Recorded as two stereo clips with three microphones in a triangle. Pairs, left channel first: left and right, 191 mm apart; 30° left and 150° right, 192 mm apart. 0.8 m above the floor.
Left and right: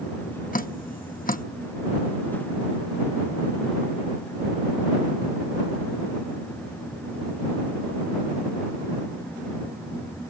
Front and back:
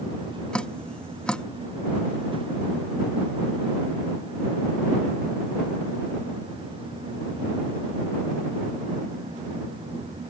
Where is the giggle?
I don't hear a giggle.